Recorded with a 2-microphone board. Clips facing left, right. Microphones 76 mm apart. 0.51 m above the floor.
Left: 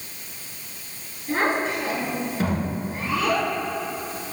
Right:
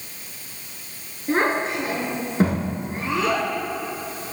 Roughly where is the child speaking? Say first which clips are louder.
Right 2 dB; right.